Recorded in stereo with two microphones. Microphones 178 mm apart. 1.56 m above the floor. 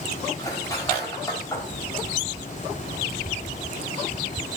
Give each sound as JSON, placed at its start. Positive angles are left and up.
{"t": 0.4, "sound": "cutlery clinking", "side_deg": 20, "distance_m": 6.0}